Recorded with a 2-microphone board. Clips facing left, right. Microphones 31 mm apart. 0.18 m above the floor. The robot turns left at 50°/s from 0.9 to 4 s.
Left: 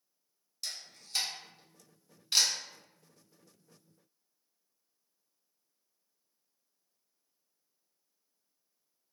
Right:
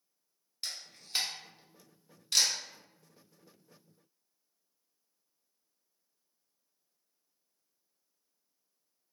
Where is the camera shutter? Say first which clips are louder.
Right 1 dB; 35° right (ahead or behind), 0.9 m; by 2.5 s 25° left (ahead or behind), 0.9 m.